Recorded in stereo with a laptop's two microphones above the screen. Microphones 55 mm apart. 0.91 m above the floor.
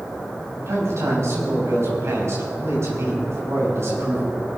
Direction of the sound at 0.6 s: 60° right (ahead or behind).